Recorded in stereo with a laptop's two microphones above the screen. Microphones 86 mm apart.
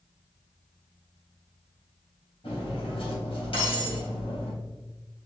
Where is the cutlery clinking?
75° left (ahead or behind), 3.5 m.